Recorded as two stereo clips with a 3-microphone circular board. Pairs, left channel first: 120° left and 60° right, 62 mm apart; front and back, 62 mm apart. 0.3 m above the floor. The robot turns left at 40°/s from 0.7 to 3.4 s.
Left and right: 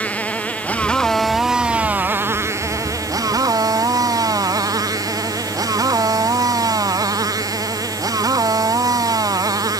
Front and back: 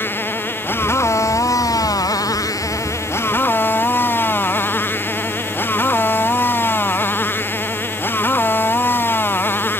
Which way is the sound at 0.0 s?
50° left.